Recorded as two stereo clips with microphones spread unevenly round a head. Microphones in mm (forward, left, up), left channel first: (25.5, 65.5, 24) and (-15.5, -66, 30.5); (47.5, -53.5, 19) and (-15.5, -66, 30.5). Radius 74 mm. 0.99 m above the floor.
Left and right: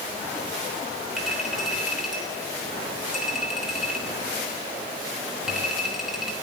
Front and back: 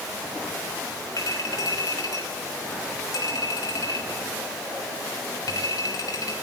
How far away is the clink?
About 3 m.